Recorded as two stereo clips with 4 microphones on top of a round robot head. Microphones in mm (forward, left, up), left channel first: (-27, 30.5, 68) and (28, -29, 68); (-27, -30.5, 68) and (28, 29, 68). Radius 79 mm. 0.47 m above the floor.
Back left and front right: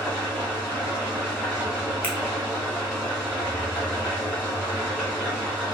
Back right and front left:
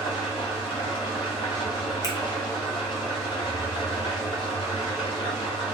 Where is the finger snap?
160° right, 0.9 m.